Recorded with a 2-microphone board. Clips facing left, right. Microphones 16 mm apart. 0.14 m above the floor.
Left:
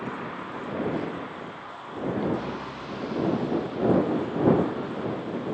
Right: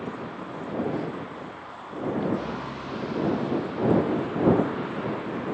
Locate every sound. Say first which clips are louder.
0.0 s a vehicle: left 1 dB; 15° left (ahead or behind); by 5.5 s 25° right (ahead or behind)